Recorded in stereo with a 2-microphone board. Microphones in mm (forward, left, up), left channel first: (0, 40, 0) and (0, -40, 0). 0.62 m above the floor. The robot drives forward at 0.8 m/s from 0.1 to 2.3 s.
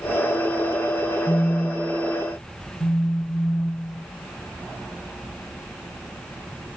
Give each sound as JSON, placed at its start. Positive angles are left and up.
{"t": 1.3, "sound": "a phone buzzing", "side_deg": 45, "distance_m": 0.7}